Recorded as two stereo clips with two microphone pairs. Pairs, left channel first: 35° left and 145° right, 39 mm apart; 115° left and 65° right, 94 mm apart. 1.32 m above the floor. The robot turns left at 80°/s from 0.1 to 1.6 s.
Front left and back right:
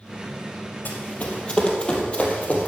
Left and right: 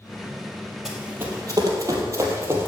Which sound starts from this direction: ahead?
Running footsteps, at 0.8 s.